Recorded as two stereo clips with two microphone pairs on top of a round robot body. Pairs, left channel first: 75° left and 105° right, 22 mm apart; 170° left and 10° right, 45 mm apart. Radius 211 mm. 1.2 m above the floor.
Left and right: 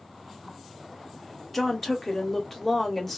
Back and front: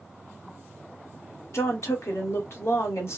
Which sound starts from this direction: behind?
A woman speaking, at 1.5 s.